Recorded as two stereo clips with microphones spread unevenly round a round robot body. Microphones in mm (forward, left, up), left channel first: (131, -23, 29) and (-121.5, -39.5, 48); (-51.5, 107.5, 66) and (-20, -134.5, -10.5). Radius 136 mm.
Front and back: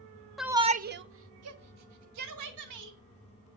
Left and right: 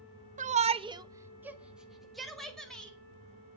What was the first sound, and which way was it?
A shout, 80° right.